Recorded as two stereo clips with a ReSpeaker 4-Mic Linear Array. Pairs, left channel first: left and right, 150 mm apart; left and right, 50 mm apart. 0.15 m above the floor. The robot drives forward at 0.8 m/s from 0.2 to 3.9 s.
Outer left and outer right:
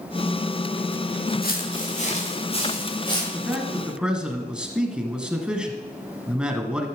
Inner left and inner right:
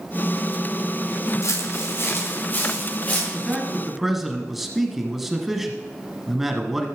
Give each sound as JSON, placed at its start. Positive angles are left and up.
{"t": 1.4, "sound": "footsteps", "side_deg": 70, "distance_m": 2.5}
{"t": 3.3, "sound": "a man speaking", "side_deg": -5, "distance_m": 2.0}